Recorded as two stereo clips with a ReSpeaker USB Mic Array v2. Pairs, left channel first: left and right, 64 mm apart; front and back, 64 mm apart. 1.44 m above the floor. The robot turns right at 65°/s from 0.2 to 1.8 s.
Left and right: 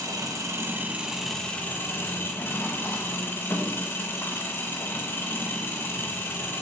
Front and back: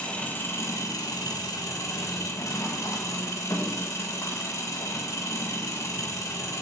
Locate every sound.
0.0 s an engine running: 70° right, 1.7 m; by 6.6 s 35° left, 1.7 m